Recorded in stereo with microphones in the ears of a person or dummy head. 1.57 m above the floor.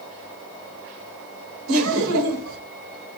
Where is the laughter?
80° right, 1.5 m.